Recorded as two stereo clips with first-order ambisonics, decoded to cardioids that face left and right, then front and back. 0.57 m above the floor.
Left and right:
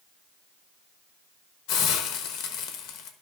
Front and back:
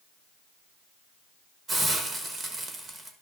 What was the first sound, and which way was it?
A hiss, 110° left.